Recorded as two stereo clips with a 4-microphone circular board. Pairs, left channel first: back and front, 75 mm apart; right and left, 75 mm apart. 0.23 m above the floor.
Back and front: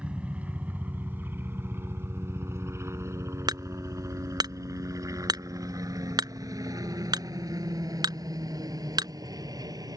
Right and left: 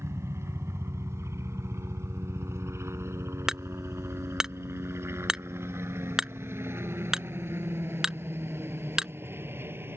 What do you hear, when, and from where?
0.0 s a helicopter: 65° left; by 10.0 s 30° left
3.5 s hammering: 5° left